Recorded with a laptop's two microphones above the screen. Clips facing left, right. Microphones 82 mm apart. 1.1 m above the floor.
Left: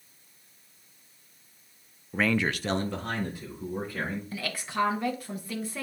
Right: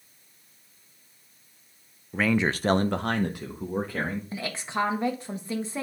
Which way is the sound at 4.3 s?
25° right (ahead or behind).